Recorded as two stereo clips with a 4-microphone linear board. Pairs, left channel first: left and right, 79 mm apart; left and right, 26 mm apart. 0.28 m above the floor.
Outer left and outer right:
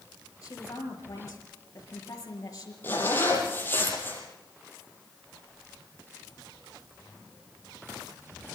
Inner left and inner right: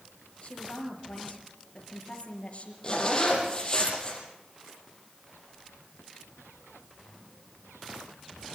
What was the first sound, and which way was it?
A woman speaking, 45° left (ahead or behind).